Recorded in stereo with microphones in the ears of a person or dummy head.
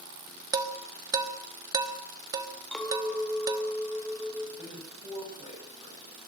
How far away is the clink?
About 3 m.